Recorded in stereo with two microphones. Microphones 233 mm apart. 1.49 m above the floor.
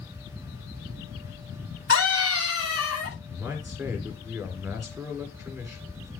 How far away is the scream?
About 9 m.